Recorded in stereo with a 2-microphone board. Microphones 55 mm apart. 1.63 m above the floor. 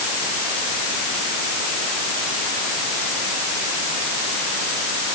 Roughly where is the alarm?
No alarm in this recording.